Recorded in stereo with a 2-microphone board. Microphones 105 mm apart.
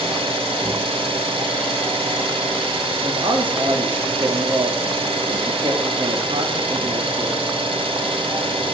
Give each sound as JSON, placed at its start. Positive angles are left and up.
{"t": 0.0, "sound": "an engine running", "side_deg": -60, "distance_m": 1.8}
{"t": 3.0, "sound": "a man speaking", "side_deg": -55, "distance_m": 2.0}